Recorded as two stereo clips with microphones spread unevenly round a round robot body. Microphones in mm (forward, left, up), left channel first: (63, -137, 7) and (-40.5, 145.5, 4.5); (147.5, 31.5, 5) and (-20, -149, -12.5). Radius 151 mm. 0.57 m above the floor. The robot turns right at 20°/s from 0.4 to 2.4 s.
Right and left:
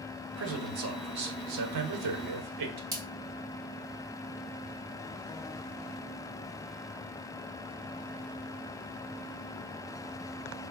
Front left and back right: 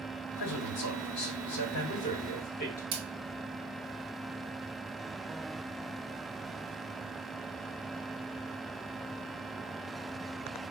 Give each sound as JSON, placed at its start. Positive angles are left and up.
{"t": 0.4, "sound": "a man speaking", "azimuth_deg": 70, "distance_m": 1.2}
{"t": 2.9, "sound": "a splash", "azimuth_deg": -170, "distance_m": 1.4}